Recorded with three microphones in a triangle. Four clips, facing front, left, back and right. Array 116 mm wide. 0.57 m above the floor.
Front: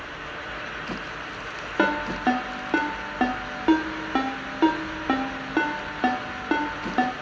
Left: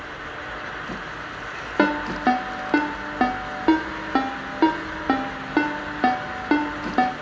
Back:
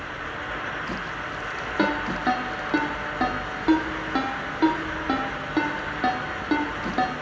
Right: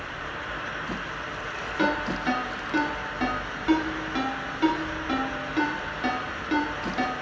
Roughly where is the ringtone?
Left.